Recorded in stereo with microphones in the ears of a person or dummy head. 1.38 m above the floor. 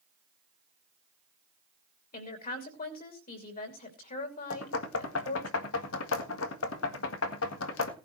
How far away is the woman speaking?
About 3 m.